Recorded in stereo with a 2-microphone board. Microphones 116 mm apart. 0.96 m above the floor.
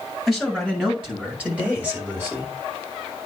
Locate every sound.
0.3 s a man speaking: centre (ahead or behind), 7 m; by 2.5 s 25° right (ahead or behind), 4.5 m